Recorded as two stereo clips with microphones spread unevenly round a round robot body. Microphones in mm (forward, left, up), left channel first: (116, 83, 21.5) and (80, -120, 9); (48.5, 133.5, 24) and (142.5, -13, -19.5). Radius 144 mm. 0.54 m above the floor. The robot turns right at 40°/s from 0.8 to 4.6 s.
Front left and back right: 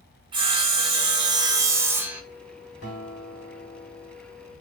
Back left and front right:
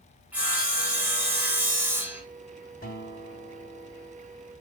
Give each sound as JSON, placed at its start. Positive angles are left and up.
{"t": 0.3, "sound": "sawing", "azimuth_deg": -90, "distance_m": 0.6}
{"t": 2.8, "sound": "a guitar", "azimuth_deg": 80, "distance_m": 1.1}